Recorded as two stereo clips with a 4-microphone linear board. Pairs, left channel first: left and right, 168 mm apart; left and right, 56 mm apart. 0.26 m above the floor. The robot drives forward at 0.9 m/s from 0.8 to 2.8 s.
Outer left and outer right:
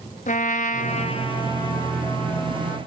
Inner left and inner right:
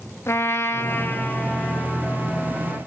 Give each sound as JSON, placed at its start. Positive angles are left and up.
{"t": 0.3, "sound": "a trumpet", "side_deg": 55, "distance_m": 0.8}